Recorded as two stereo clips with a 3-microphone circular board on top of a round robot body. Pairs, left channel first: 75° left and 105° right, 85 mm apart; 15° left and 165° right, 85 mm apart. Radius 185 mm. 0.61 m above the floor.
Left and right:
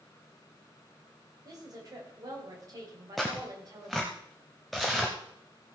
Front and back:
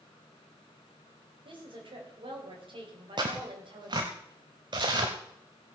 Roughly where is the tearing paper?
Behind.